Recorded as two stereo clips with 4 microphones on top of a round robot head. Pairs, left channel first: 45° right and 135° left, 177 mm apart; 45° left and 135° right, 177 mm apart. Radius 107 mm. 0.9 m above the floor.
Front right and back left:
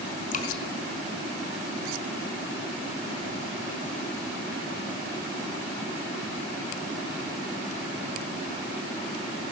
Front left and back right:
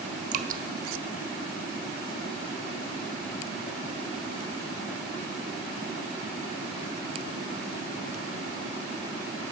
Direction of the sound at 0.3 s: 95° right.